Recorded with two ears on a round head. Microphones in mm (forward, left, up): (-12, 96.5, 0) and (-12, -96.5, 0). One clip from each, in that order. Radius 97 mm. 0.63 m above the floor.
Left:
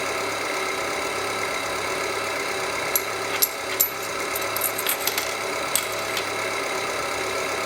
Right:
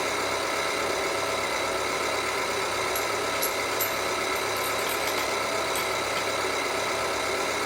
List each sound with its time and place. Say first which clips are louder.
0.0 s an engine running: left 1 dB; 30° left (ahead or behind), 7.5 m
3.0 s a dropped coin: left 1 dB; 45° left (ahead or behind), 0.6 m